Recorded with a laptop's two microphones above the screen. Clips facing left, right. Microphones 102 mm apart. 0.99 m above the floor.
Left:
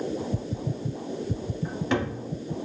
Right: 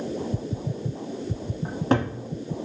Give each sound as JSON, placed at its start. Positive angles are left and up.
{"t": 1.6, "sound": "a cupboard door", "side_deg": -40, "distance_m": 1.1}